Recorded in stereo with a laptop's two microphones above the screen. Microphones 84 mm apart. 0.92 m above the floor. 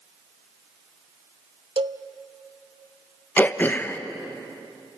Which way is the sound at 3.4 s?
20° left (ahead or behind).